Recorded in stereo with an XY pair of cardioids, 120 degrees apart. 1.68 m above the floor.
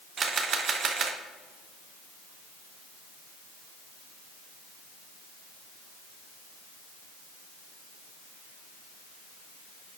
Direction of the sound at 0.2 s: 40° right.